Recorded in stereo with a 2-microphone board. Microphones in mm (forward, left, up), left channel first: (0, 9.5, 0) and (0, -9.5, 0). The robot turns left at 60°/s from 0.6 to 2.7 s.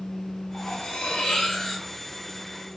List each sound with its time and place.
0.5 s cutlery clinking: 105° left, 1.0 m; by 1.9 s 30° left, 1.0 m